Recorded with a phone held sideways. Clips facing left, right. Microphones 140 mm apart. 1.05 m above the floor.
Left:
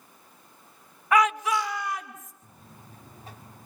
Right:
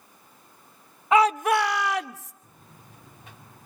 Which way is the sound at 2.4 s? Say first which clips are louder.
Left 1 dB; 35° left (ahead or behind).